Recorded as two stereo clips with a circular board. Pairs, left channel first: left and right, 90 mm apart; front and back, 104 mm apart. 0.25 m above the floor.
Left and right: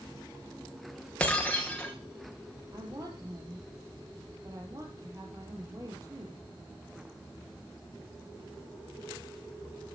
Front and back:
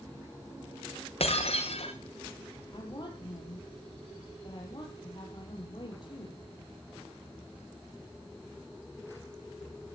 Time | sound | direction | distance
1.2 | breaking glass | 15° left | 5 m
2.7 | a woman speaking | 40° right | 7.5 m